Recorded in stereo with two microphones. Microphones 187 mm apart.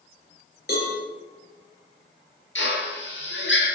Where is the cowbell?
55° left (ahead or behind), 7.5 m.